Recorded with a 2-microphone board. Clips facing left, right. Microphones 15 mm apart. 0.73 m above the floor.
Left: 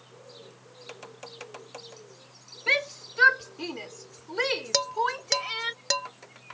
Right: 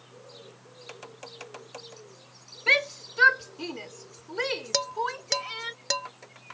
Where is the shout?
10° right (ahead or behind); by 5.7 s 15° left (ahead or behind).